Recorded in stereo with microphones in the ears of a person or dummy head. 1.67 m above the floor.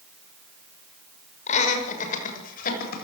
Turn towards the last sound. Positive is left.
turn(degrees=55)  # may be behind; listen again after turning